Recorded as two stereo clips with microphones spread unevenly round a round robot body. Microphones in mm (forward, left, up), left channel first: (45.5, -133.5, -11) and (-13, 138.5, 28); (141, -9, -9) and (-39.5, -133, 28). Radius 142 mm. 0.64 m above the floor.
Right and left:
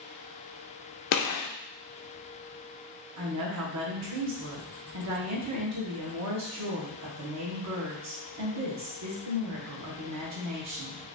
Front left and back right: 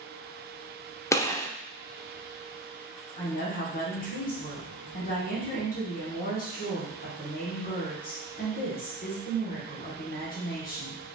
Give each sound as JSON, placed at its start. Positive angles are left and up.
{"t": 1.1, "sound": "a gunshot", "azimuth_deg": -45, "distance_m": 0.6}
{"t": 3.2, "sound": "a woman speaking", "azimuth_deg": 75, "distance_m": 1.4}